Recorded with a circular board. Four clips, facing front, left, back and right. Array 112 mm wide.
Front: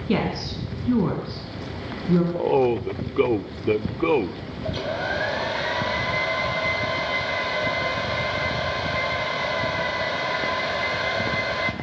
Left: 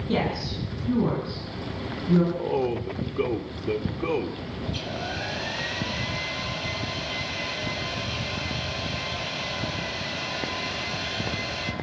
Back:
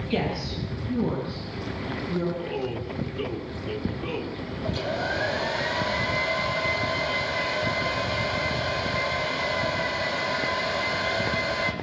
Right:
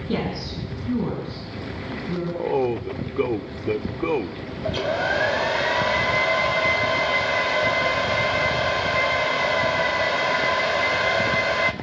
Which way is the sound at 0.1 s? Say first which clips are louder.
Even, front 4 dB; 5° right.